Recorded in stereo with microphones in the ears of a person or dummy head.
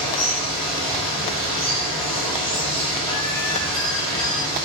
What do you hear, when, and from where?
0.0 s running water: 25° left (ahead or behind), 2 m